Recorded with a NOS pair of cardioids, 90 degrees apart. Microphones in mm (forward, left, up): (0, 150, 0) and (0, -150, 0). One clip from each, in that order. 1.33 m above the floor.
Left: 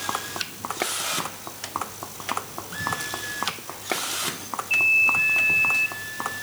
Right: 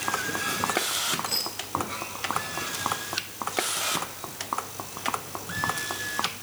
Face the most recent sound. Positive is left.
No sound to turn to.